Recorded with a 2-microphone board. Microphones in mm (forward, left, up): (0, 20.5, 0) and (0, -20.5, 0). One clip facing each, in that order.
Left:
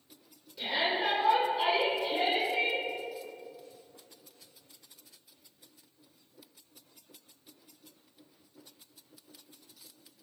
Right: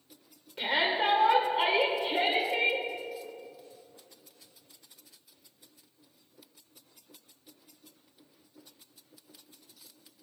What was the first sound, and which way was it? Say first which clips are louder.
A shout: right 3 dB; 50° right (ahead or behind).